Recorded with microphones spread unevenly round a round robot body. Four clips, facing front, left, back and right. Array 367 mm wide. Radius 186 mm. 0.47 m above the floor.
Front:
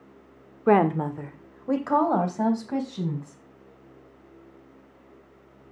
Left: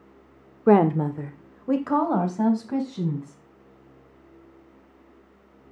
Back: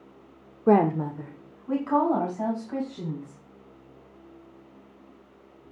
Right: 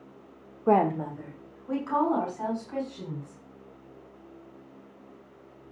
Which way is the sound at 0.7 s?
95° left.